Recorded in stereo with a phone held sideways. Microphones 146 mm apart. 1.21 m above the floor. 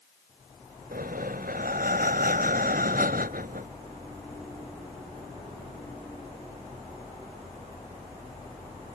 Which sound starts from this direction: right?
Breathing, at 0.9 s.